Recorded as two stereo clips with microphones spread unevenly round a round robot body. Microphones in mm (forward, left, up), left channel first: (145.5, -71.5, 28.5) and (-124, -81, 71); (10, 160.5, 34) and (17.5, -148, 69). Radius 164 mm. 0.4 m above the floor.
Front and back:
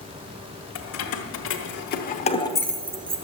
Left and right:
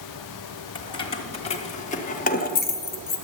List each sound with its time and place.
0.8 s keys jangling: 20° left, 1.7 m; by 3.2 s 120° left, 0.8 m